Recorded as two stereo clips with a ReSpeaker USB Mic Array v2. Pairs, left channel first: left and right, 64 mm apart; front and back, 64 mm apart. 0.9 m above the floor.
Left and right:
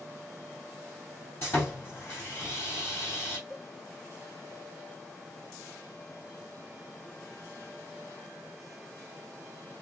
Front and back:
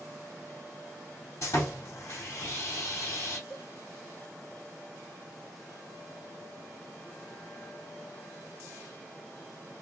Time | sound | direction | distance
1.4 | sawing | 40° left | 2.5 m
3.5 | a cowbell | 60° left | 2.5 m